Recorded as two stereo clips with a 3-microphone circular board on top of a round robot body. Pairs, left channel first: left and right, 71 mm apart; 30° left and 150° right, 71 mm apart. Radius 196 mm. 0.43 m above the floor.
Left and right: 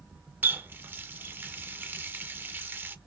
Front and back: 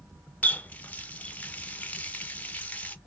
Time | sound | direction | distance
0.4 | a running tap | 35° right | 0.9 m